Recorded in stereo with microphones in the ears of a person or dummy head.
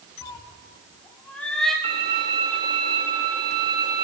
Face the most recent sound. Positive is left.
turn(degrees=-25)  # may be behind; listen again after turning